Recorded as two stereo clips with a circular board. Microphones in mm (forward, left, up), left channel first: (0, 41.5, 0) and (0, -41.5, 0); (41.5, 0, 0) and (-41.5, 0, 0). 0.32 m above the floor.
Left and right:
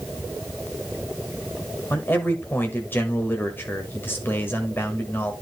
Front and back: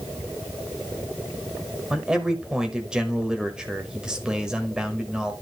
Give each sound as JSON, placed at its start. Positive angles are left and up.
{"t": 1.9, "sound": "a man speaking", "azimuth_deg": 110, "distance_m": 1.3}